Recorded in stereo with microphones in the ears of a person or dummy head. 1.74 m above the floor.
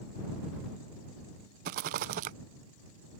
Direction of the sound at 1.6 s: 45° right (ahead or behind).